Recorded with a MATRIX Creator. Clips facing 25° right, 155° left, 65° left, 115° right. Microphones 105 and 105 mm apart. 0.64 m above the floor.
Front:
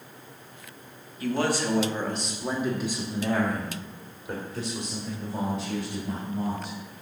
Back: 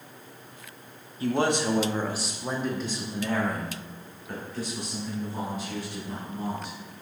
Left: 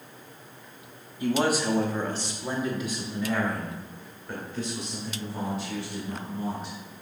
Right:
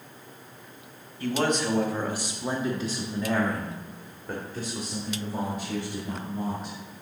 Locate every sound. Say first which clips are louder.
1.2 s a man speaking: back 1 dB, left 1 dB; 125° left, 0.9 m; by 6.8 s 75° right, 2.5 m